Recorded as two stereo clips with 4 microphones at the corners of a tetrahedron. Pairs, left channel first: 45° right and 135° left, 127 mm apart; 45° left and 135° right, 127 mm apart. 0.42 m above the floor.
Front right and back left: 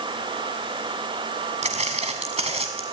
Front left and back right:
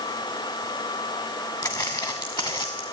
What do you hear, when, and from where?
1.6 s footsteps: 105° left, 1.6 m; by 2.8 s 95° left, 2 m